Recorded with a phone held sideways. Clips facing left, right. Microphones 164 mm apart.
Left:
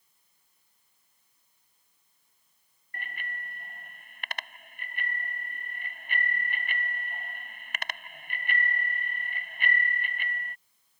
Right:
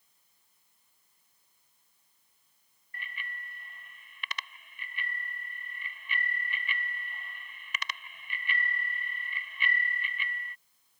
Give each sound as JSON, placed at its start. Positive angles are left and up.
{"t": 2.9, "sound": "a bicycle bell", "side_deg": 50}